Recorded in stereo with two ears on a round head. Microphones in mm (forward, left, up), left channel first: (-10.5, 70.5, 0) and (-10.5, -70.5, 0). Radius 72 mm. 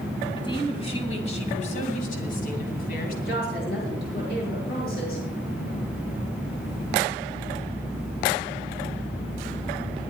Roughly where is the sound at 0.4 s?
Left.